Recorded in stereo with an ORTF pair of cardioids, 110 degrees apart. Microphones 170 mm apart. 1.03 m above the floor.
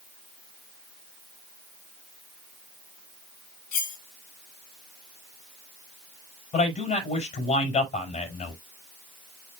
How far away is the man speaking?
About 5.5 m.